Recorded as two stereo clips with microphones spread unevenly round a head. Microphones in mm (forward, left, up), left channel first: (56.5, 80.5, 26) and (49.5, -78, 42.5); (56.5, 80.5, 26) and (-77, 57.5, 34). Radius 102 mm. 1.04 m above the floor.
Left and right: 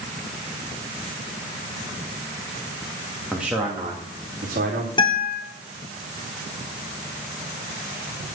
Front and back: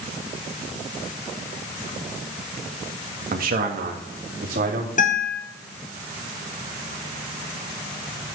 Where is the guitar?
30° left, 4 m.